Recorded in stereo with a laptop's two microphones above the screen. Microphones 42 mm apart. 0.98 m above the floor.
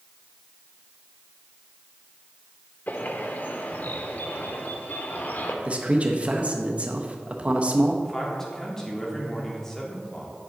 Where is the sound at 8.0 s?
10° left (ahead or behind), 2 m.